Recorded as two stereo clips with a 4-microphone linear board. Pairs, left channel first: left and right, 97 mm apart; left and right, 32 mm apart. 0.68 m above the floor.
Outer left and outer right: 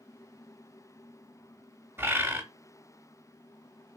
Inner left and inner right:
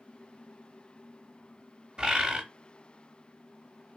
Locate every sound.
2.0 s a bird: 25° right (ahead or behind), 0.9 m